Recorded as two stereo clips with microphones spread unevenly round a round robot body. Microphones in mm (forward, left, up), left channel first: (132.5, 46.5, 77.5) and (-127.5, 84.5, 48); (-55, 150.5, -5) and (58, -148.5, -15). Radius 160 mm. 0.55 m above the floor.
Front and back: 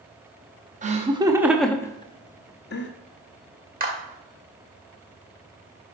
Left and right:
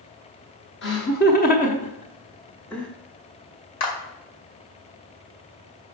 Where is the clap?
120° left, 2 m.